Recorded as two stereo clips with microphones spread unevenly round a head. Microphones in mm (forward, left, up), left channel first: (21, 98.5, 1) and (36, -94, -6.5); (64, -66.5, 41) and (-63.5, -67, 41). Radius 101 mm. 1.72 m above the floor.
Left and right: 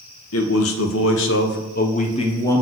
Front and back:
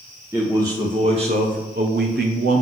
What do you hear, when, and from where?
0.3 s a man speaking: 100° left, 1.2 m; by 2.6 s 170° left, 0.8 m